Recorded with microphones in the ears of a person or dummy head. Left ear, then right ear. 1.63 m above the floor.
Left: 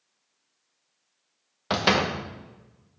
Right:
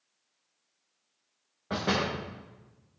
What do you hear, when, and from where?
1.7 s a door slam: 30° left (ahead or behind), 0.8 m